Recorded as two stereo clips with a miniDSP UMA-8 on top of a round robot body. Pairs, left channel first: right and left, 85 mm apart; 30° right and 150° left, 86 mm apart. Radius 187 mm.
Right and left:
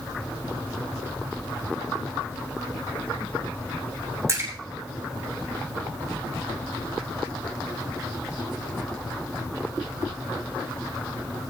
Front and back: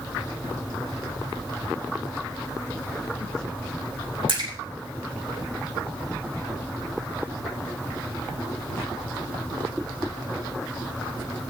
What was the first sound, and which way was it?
A splash, 145° left.